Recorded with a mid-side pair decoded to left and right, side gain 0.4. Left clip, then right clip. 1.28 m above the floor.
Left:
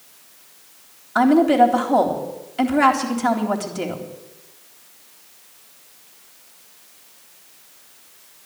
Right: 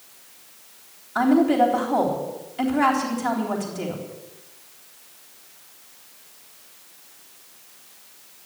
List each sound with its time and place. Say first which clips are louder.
1.1 s a woman speaking: left 4 dB; 55° left, 3.5 m